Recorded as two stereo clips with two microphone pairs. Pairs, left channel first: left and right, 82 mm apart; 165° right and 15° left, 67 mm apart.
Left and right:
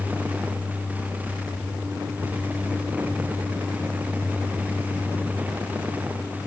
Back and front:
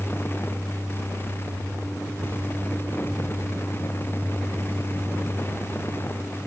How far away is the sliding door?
No sliding door in this recording.